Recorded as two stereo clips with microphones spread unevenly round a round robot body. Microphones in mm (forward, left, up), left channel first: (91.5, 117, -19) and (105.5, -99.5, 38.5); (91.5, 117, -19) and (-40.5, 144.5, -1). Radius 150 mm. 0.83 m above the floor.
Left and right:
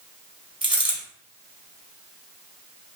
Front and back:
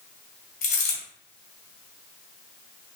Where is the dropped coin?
20° right, 1.8 m.